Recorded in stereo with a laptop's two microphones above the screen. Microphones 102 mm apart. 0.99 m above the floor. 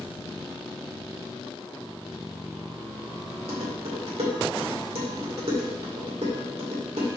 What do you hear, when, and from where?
3.5 s dishes clattering: 75° right (ahead or behind), 1.9 m